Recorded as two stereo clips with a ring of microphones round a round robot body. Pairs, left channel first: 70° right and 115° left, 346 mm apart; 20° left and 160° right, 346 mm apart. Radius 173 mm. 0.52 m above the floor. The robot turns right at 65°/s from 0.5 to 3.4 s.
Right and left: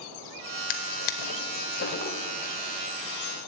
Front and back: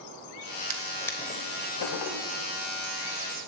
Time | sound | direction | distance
0.7 | a drawer | 85° right | 0.9 m